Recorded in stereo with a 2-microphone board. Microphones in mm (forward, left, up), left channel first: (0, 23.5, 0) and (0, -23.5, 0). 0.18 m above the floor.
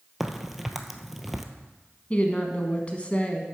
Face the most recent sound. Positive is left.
turn(degrees=30)  # may be behind; listen again after turning